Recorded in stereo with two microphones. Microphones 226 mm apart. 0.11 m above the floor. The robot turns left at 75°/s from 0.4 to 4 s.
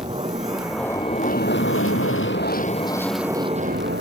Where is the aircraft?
155° right; by 4.0 s 65° right.